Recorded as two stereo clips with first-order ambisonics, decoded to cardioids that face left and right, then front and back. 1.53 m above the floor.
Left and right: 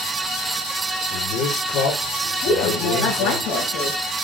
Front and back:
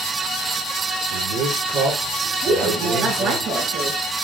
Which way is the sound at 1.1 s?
130° left.